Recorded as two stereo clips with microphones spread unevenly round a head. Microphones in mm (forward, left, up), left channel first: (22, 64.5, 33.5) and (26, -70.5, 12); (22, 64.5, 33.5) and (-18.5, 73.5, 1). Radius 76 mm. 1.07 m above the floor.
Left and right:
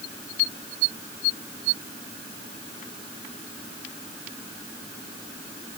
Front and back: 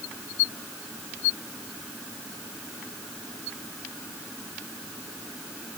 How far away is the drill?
No drill in this recording.